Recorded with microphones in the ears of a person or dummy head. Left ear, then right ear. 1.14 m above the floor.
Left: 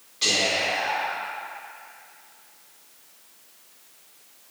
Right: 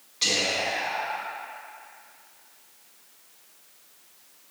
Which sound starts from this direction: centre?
Whispering, at 0.2 s.